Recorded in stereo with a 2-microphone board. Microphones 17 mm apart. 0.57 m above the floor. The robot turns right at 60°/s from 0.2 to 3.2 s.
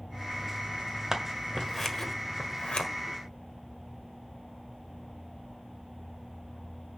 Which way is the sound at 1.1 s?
25° right (ahead or behind).